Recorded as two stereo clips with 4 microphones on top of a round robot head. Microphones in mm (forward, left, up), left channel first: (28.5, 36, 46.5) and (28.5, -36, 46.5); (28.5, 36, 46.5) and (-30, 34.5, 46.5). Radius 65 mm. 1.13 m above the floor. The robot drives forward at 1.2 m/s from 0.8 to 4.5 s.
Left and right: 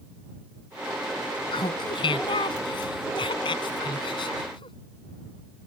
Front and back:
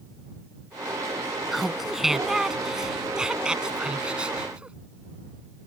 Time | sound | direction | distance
1.5 | laughter | 95° left | ?